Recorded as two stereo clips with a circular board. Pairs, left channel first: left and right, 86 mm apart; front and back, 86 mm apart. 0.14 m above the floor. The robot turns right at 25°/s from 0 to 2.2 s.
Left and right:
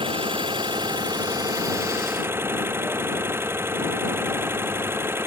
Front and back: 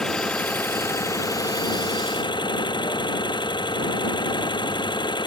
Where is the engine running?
85° right; by 5.3 s 30° right.